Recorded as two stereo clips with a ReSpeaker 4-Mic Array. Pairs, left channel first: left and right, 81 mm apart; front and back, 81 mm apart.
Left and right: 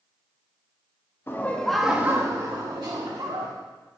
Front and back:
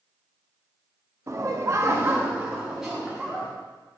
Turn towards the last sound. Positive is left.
turn(degrees=-90)